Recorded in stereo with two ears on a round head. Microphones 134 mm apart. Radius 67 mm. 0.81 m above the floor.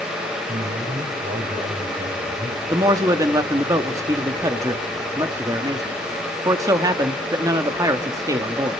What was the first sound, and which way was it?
A man speaking, 70° right (ahead or behind).